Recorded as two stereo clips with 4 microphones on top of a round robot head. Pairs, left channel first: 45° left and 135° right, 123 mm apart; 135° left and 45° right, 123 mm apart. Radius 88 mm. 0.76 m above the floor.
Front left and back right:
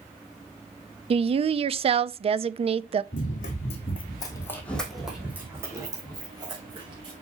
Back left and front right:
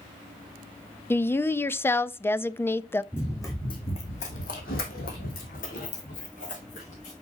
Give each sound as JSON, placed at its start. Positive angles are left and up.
{"t": 1.1, "sound": "a woman speaking", "azimuth_deg": -155, "distance_m": 0.5}
{"t": 3.1, "sound": "running footsteps", "azimuth_deg": 65, "distance_m": 2.5}